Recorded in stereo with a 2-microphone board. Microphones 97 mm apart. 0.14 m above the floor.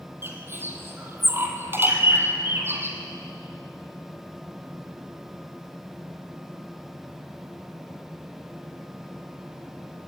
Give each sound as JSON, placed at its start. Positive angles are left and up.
{"t": 0.2, "sound": "a bird", "side_deg": -25, "distance_m": 2.5}